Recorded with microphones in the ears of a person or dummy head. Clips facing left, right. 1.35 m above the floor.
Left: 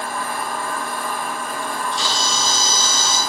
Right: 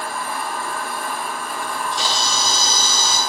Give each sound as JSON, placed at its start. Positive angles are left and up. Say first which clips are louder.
{"t": 0.0, "sound": "a machine running", "louder": "left 1 dB", "side_deg": 35, "distance_m": 1.4}
{"t": 1.6, "sound": "a camera shutter", "louder": "right 1 dB", "side_deg": -45, "distance_m": 1.3}